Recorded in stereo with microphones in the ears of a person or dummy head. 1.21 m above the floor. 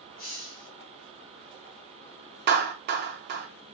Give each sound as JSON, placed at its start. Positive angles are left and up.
{"t": 0.2, "sound": "a hiss", "side_deg": 50, "distance_m": 1.9}
{"t": 2.5, "sound": "a clap", "side_deg": -45, "distance_m": 0.8}